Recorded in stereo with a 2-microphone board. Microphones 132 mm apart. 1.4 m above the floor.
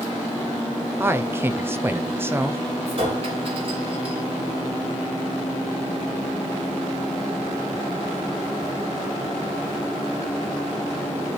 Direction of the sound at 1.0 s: 15° right (ahead or behind).